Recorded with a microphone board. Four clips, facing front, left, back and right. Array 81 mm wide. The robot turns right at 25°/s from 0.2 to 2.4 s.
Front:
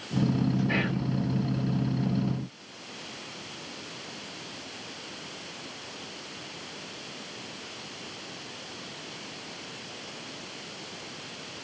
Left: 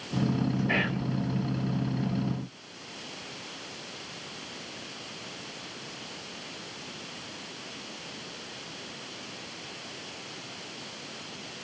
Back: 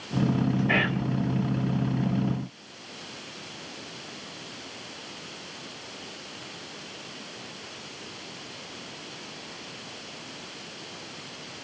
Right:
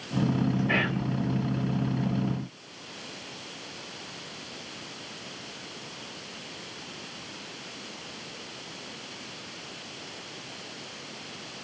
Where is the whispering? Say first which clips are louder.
Right 1 dB, back 3 dB; 170° right, 1.2 m; by 1.0 s 165° right, 1.2 m.